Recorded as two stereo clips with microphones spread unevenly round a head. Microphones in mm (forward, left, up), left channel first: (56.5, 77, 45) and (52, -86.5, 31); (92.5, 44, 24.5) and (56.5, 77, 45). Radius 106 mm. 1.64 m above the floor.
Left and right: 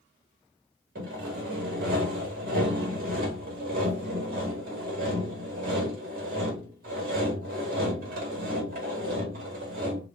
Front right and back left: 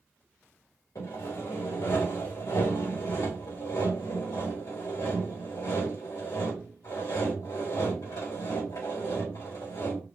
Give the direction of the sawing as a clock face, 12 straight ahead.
3 o'clock.